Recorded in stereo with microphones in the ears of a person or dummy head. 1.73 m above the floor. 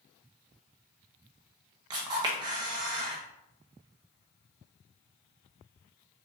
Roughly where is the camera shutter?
Right.